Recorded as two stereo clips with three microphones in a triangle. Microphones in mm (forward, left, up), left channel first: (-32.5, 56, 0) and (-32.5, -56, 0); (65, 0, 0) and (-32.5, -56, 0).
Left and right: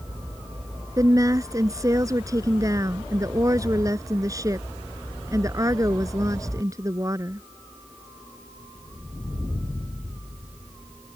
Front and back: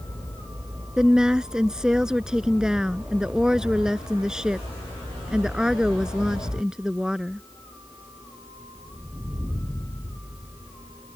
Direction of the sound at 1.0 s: 70° right.